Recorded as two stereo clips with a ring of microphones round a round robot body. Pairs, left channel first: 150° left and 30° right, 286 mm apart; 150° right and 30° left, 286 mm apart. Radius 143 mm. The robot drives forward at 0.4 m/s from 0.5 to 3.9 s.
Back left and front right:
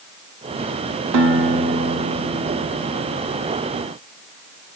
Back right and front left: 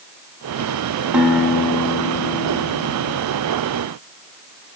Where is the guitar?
55° right, 0.9 m; by 3.2 s 115° right, 0.9 m.